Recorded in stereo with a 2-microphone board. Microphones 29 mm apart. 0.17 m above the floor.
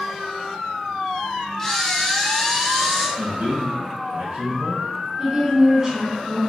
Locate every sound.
1.6 s a camera shutter: 10° left (ahead or behind), 1.8 m
3.2 s a man speaking: 45° right (ahead or behind), 1.8 m
5.2 s a woman speaking: 20° right (ahead or behind), 1.1 m